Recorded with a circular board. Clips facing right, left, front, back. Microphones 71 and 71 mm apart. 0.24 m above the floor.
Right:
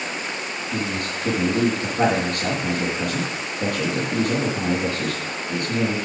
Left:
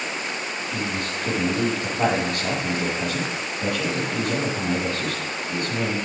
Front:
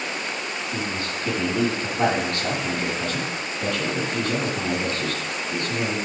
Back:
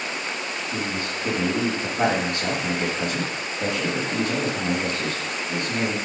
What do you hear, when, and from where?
0.7 s a man speaking: 110° right, 5.5 m